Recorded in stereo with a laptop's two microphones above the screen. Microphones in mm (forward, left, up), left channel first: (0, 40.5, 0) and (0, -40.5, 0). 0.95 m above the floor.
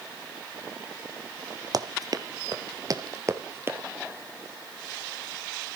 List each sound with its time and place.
1.7 s running footsteps: 50° right (ahead or behind), 1.7 m; by 3.8 s 30° right (ahead or behind), 1.6 m